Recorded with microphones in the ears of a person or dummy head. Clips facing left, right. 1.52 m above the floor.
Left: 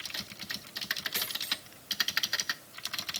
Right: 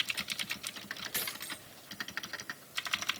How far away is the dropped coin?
About 4.5 m.